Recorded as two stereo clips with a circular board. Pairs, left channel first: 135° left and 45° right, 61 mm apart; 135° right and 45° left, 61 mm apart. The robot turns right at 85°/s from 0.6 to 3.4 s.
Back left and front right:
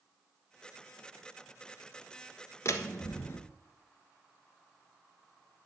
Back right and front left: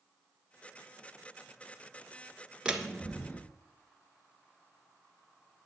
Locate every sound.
2.6 s a door slam: 115° left, 1.1 m; by 3.4 s 175° left, 1.1 m